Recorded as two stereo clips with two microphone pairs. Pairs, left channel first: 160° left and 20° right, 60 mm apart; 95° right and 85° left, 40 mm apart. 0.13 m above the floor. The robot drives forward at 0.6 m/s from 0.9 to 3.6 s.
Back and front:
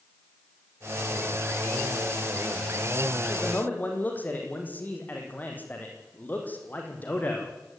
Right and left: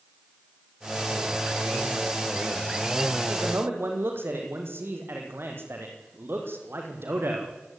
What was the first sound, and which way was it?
A man speaking, 95° left.